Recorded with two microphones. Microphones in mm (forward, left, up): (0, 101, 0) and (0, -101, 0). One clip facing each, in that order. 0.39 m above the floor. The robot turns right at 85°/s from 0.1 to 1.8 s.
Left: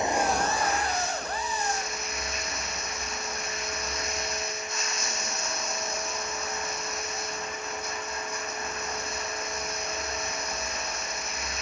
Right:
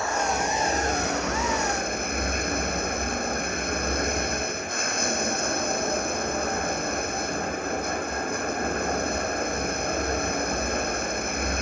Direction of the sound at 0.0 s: 160° left.